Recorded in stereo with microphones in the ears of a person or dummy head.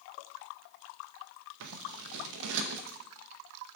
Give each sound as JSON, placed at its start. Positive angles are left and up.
{"t": 1.6, "sound": "scissors", "side_deg": -75, "distance_m": 0.6}